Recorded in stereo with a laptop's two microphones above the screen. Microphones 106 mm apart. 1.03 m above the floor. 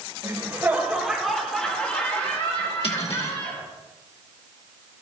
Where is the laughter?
30° right (ahead or behind), 2.5 m; by 3.6 s 40° left (ahead or behind), 5 m.